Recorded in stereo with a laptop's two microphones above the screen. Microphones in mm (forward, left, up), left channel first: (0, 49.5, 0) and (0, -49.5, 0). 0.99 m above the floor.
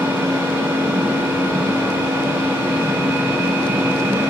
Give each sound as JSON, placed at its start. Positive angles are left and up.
{"t": 0.0, "sound": "a machine running", "side_deg": -30, "distance_m": 2.5}